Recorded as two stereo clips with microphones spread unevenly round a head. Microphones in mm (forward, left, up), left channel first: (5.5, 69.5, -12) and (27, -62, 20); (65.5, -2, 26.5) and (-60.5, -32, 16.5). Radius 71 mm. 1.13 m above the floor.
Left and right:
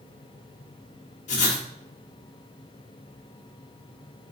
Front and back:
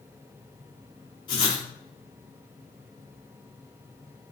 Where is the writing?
70° left, 3.5 m.